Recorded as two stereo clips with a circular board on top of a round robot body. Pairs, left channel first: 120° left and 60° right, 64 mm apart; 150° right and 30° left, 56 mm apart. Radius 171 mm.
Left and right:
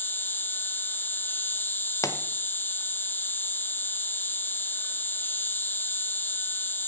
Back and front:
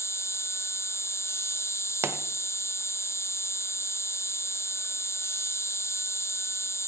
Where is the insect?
175° left, 0.9 m.